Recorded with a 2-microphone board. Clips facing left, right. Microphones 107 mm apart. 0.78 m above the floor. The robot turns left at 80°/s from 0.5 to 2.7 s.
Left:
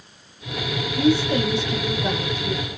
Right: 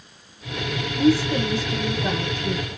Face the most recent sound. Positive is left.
turn(degrees=-30)